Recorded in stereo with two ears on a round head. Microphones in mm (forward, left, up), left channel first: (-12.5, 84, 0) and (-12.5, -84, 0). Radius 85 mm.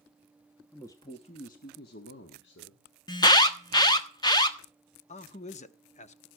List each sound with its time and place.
0.7 s a man speaking: 10° left (ahead or behind), 1.0 m; by 2.9 s 70° left (ahead or behind), 1.9 m
3.1 s an alarm: 20° left (ahead or behind), 1.2 m
5.1 s a man speaking: 40° left (ahead or behind), 0.9 m